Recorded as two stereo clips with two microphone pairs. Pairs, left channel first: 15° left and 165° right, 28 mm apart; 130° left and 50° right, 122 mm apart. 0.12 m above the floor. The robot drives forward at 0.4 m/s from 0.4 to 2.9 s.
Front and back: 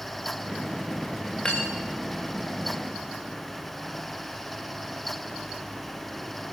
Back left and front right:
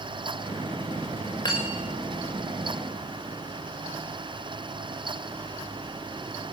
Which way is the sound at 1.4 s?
80° left.